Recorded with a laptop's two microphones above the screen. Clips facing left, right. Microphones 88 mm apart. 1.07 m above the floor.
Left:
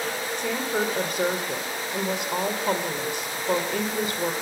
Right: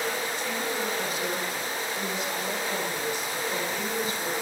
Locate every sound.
0.4 s a woman speaking: 65° left (ahead or behind), 3.5 m